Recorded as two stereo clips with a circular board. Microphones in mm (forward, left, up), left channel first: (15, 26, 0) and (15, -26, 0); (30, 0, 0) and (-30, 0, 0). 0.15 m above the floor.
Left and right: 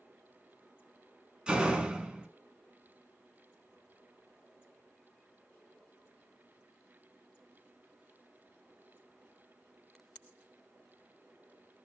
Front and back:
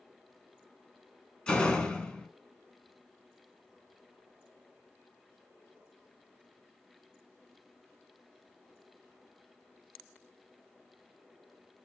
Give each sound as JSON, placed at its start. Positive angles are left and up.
{"t": 1.5, "sound": "a door slam", "azimuth_deg": -50, "distance_m": 0.7}